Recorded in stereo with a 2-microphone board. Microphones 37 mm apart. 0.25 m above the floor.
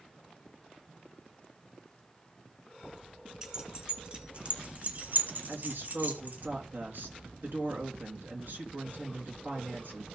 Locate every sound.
3.4 s keys jangling: 15° right (ahead or behind), 1.9 m; by 6.5 s 50° right (ahead or behind), 1.6 m
5.5 s a woman speaking: 70° right (ahead or behind), 3 m